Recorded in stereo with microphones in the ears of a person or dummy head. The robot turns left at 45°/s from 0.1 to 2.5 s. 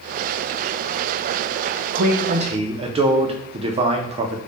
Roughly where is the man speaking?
Right.